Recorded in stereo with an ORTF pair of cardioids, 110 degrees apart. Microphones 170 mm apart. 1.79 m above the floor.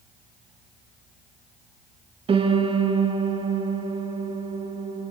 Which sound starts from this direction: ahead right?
A piano, at 2.3 s.